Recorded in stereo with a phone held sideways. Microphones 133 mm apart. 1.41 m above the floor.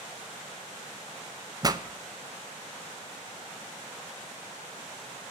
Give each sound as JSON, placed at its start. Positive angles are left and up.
{"t": 1.6, "sound": "a pop", "side_deg": -30, "distance_m": 0.6}